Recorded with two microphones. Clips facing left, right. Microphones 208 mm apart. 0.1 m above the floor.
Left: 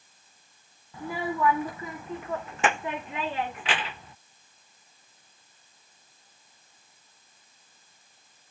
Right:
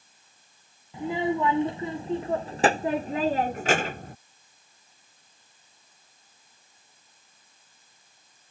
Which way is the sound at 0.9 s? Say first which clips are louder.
Right 5 dB; 20° right (ahead or behind).